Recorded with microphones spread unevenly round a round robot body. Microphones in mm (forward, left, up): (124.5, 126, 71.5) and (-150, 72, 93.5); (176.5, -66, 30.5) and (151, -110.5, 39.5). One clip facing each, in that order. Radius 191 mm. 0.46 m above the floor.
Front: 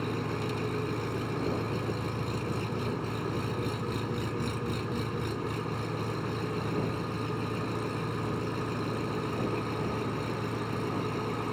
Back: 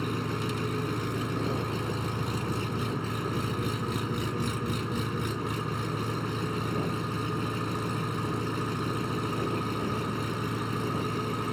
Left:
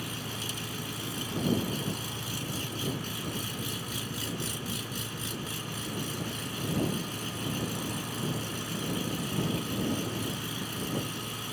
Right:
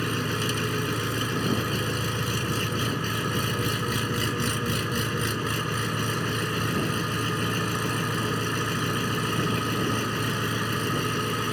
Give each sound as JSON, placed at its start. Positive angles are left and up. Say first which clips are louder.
{"t": 0.0, "sound": "an engine running", "louder": "back 1 dB, right 10 dB", "azimuth_deg": -95}